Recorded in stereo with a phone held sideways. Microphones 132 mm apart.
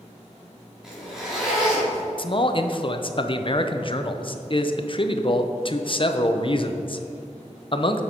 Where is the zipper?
5° right (ahead or behind), 3 m.